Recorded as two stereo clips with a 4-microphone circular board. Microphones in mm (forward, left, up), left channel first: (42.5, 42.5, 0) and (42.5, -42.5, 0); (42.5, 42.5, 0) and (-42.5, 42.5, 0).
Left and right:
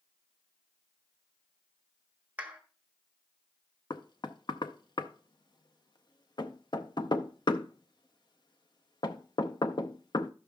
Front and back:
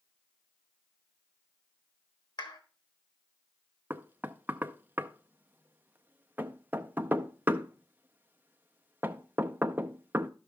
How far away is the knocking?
About 0.6 m.